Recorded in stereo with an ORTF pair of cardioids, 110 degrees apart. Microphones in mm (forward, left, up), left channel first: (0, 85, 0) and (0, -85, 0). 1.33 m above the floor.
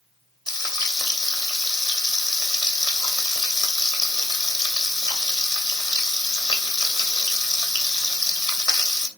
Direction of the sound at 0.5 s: 25° left.